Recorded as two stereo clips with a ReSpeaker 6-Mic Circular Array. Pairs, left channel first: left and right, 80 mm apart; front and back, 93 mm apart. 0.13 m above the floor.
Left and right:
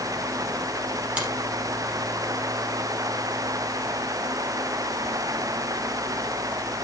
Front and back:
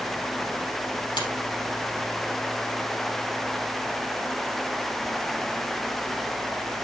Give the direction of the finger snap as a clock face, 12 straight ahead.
1 o'clock.